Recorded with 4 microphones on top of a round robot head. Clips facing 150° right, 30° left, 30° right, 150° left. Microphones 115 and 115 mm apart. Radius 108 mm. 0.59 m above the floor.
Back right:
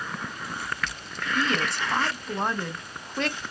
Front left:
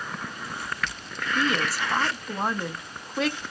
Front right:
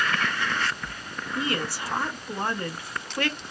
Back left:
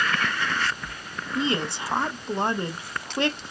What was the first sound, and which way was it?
A woman speaking, 115° left.